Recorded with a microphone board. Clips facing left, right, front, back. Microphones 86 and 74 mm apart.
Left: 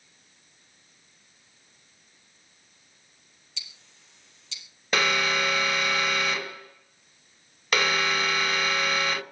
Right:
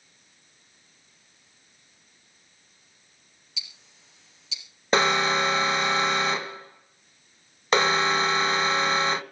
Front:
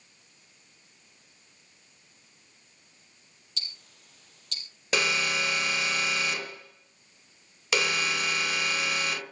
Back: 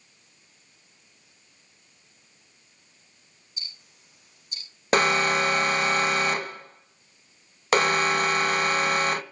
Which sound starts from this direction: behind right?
An alarm, at 4.9 s.